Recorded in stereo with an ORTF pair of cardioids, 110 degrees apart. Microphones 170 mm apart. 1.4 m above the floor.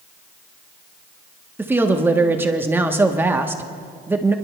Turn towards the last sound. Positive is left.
turn(degrees=-15)